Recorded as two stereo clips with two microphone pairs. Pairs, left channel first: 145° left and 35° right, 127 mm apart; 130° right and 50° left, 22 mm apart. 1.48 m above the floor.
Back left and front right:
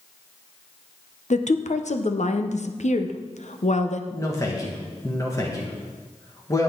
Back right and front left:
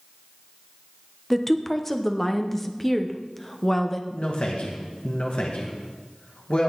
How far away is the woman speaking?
About 1.0 m.